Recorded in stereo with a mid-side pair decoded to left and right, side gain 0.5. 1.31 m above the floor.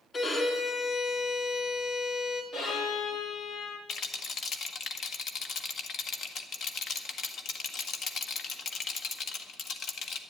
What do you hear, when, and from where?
0.1 s a violin: 40° left, 3 m
2.5 s a violin: 65° left, 4 m
3.9 s a rattle: 55° left, 1.4 m